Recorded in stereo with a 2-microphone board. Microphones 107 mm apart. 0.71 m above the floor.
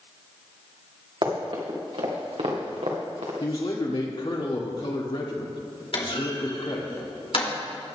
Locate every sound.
1.2 s running footsteps: 55° right (ahead or behind), 3 m; by 3.3 s 75° right (ahead or behind), 3 m
3.4 s a man speaking: 55° left (ahead or behind), 2 m
5.9 s a clunk: 60° left (ahead or behind), 2.5 m